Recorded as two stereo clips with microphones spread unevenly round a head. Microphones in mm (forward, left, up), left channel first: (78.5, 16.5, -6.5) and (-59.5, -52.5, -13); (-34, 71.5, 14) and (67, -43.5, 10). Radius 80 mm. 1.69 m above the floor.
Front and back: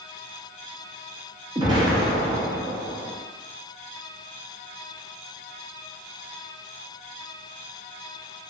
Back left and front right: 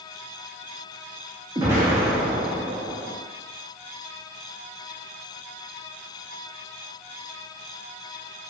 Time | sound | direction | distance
1.6 | an explosion | 115° right | 0.6 m